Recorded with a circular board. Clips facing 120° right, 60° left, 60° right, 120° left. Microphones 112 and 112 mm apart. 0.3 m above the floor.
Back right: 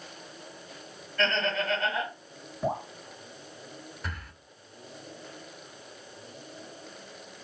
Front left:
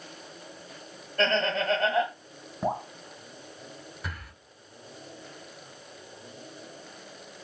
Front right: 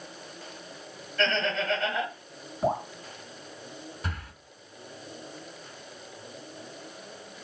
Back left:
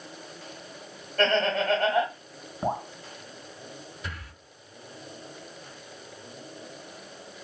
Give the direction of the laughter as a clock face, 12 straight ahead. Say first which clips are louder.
Front left 3 dB, back left 4 dB; 9 o'clock.